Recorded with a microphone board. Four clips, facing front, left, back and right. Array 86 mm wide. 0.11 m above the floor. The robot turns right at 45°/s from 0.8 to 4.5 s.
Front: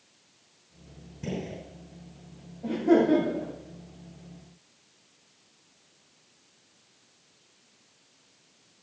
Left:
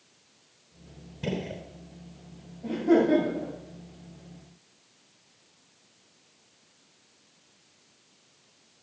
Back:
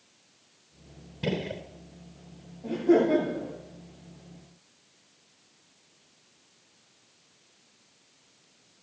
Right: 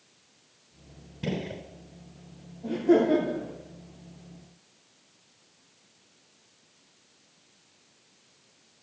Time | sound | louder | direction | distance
1.2 | a gunshot | even, back 4 dB | 170° right | 0.9 m
2.6 | laughter | even, front 1 dB | 10° left | 8 m